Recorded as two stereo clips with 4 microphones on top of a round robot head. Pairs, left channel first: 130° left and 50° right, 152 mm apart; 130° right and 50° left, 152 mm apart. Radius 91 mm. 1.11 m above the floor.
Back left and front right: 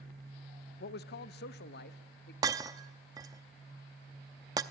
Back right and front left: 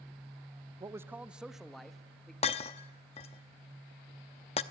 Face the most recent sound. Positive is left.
turn(degrees=-105)